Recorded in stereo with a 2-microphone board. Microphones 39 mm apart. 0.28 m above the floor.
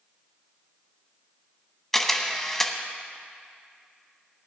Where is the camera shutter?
5° left (ahead or behind), 1.0 m.